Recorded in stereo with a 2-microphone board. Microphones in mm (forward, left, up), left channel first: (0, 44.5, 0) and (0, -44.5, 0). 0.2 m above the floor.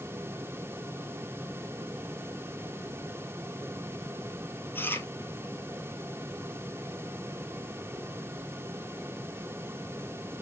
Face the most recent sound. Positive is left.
turn(degrees=25)  # may be behind; listen again after turning